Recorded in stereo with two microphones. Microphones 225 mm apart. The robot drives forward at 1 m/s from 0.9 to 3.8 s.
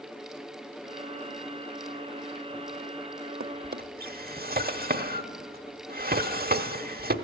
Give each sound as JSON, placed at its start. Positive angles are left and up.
{"t": 3.4, "sound": "a drawer", "side_deg": -70, "distance_m": 0.6}